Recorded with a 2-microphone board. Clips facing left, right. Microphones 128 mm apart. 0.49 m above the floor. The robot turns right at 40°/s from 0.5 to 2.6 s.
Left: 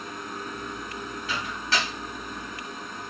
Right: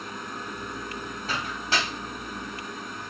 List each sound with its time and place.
1.3 s a microwave: 45° right (ahead or behind), 3 m; by 1.9 s 25° right (ahead or behind), 3 m